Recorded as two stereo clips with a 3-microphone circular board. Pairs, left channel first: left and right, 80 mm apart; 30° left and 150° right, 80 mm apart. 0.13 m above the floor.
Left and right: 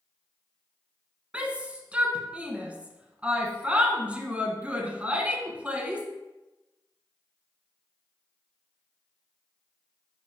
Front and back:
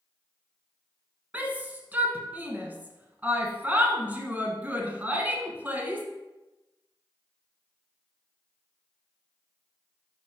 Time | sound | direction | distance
1.3 | a shout | 130° right | 1.0 m